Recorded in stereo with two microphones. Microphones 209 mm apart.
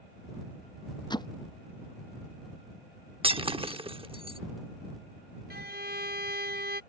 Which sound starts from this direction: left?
Hammering, at 1.1 s.